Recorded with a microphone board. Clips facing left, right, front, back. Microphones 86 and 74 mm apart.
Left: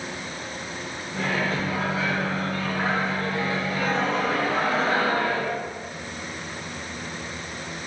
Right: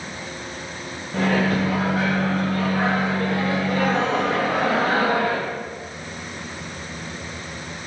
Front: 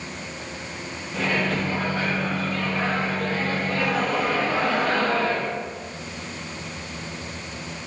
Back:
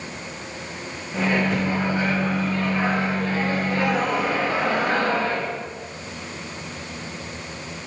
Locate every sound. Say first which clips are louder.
1.1 s a microwave: right 6 dB, back 3 dB; 110° right, 0.9 m